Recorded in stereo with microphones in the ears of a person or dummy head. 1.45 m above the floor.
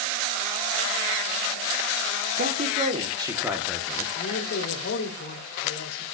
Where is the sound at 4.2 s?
50° left (ahead or behind), 3.5 m.